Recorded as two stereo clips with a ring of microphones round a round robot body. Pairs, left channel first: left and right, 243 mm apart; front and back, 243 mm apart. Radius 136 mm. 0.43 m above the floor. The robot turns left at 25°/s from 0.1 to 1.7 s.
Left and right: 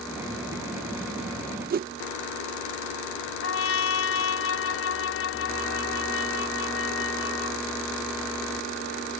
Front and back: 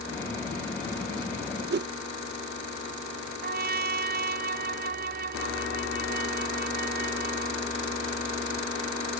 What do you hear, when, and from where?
1.7 s a whoosh: 140° right
3.4 s a trumpet: 125° left